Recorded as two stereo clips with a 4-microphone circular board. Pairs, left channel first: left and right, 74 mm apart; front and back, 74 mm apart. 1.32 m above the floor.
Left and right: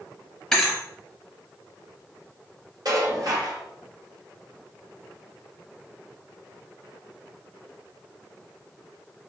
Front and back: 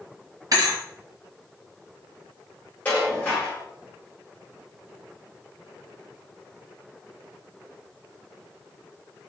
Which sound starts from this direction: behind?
A thud, at 0.5 s.